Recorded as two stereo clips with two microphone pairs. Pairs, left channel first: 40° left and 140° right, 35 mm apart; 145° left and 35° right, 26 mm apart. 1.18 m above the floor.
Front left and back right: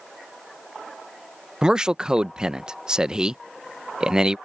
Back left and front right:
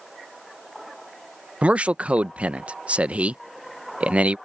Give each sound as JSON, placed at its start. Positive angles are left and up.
{"t": 1.6, "sound": "a man speaking", "azimuth_deg": -70}